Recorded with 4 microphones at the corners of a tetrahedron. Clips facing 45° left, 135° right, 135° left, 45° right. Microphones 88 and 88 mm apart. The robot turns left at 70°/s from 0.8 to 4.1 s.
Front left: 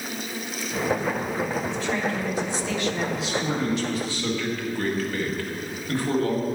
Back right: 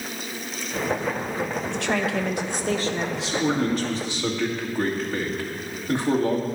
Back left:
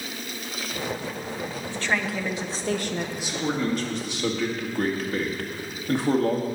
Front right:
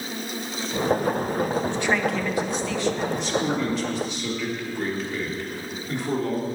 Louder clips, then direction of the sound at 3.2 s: Back right 3 dB, front right 3 dB; 140° right.